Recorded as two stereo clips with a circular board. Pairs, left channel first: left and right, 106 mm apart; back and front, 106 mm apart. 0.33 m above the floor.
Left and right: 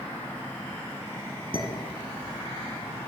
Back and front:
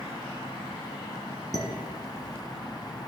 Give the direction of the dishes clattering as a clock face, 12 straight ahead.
4 o'clock.